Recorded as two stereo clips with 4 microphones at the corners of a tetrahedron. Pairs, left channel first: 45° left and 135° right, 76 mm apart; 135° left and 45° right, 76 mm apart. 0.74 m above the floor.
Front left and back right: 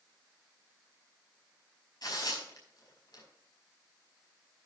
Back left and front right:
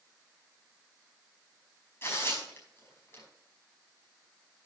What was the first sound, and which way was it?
Tearing paper, 80° left.